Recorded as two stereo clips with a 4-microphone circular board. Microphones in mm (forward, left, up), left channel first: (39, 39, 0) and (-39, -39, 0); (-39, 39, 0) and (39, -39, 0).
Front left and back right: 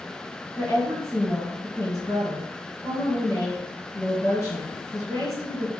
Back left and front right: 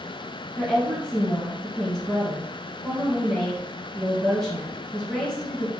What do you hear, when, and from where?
0.6 s a woman speaking: 60° left, 1.8 m